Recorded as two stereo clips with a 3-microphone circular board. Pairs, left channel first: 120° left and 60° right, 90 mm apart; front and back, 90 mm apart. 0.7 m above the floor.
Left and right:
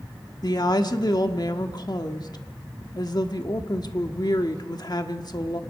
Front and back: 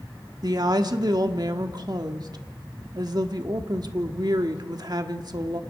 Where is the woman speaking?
150° left, 1.4 m.